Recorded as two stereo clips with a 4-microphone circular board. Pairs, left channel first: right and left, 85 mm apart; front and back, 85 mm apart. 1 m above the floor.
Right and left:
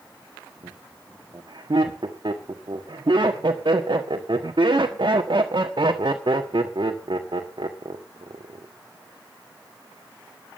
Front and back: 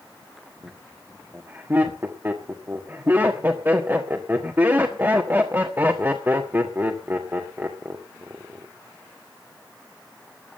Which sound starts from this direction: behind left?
Laughter, at 0.6 s.